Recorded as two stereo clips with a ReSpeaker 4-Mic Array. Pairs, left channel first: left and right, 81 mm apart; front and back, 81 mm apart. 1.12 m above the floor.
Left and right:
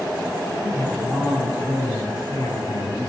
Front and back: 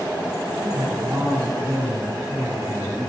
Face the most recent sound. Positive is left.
turn(degrees=130)